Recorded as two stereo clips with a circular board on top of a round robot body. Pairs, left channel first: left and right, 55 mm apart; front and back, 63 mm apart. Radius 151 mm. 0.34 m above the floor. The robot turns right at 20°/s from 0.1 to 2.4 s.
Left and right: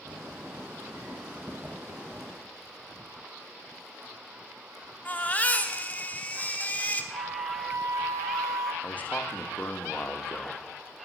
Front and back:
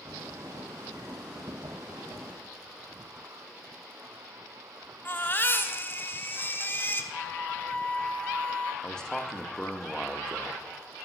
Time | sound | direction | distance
5.0 | a baby crying | 40° left | 1.2 m
7.1 | a flute | 70° right | 0.9 m
8.8 | a man speaking | 70° left | 1.1 m